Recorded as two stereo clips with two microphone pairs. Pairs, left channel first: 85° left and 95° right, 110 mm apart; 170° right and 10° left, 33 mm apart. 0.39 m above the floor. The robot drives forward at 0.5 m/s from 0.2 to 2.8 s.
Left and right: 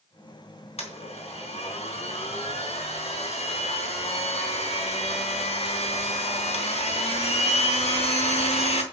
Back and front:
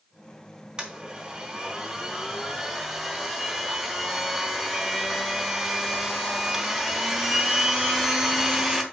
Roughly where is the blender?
Left.